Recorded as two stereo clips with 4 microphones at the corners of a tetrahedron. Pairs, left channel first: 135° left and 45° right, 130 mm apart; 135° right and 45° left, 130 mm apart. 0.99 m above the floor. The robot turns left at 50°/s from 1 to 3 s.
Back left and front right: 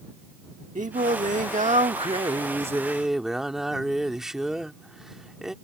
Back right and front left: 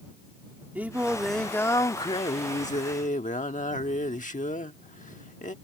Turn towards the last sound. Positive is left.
turn(degrees=-130)